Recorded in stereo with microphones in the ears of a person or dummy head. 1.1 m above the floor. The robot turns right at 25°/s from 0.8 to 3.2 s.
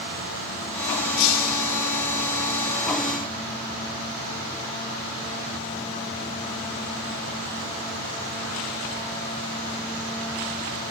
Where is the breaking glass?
80° left, 8.5 m; by 1.8 s 60° left (ahead or behind), 8.5 m.